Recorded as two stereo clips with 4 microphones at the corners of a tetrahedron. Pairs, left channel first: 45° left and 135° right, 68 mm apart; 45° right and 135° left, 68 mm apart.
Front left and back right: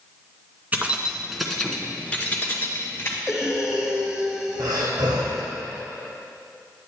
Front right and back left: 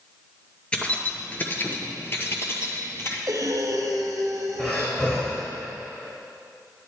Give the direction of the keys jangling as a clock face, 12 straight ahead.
3 o'clock.